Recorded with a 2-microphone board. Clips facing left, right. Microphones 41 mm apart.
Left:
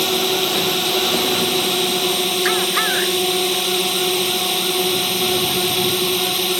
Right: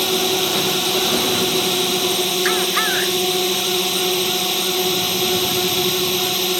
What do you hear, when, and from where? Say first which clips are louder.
0.0 s a drone: even; 5° left (ahead or behind)